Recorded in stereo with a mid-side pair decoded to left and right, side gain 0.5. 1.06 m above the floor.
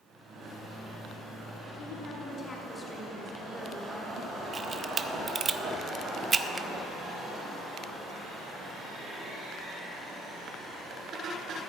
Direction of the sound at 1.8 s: 60° left.